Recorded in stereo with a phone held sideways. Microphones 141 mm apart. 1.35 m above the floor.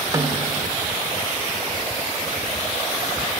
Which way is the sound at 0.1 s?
25° right (ahead or behind).